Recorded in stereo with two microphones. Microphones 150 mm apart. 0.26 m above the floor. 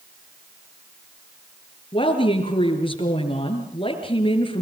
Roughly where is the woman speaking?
Left.